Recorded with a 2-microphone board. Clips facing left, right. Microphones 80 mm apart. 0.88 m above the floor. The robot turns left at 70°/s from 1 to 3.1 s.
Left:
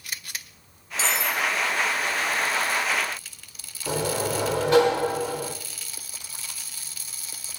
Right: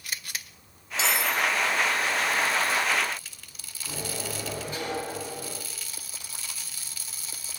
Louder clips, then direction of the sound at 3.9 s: Left 10 dB; 80° left.